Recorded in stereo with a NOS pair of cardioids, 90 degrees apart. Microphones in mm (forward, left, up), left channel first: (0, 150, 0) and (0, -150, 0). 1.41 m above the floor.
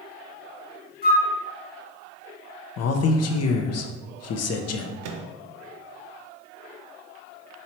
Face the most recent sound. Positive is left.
turn(degrees=-60)